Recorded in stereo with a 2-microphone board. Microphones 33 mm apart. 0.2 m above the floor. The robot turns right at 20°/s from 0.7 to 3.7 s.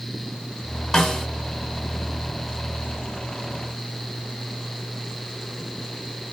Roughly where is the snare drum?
Centre.